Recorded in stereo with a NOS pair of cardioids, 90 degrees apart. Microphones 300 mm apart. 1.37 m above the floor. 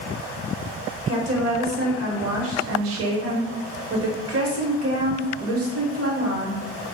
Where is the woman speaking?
50° right, 1.0 m.